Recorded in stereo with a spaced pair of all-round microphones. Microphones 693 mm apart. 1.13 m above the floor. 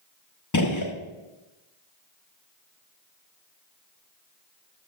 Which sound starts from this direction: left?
A gunshot, at 0.5 s.